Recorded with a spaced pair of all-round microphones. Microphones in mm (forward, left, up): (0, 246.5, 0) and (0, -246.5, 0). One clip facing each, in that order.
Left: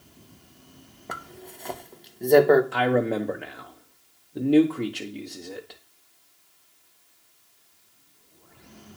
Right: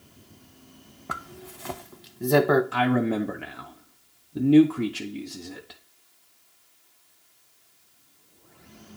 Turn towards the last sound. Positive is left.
turn(degrees=-25)  # may be behind; listen again after turning